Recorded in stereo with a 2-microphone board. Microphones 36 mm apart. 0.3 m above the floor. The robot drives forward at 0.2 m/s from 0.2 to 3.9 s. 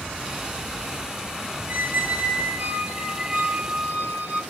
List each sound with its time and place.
1.7 s a squeak: 65° right (ahead or behind), 0.6 m; by 4.4 s 45° right (ahead or behind), 0.7 m